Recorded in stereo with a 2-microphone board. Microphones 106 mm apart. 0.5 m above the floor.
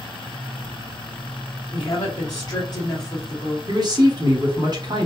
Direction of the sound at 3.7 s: 40° right (ahead or behind).